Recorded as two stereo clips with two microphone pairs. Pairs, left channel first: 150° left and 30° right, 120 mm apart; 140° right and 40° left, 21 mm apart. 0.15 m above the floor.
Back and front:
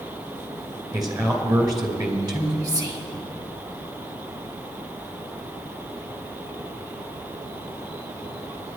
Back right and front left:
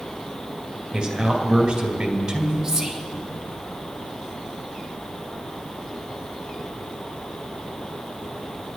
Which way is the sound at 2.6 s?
5° right.